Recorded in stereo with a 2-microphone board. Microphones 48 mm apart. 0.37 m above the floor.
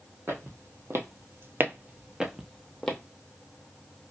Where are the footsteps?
60° right (ahead or behind), 1.0 m; by 3.0 s 10° left (ahead or behind), 0.8 m.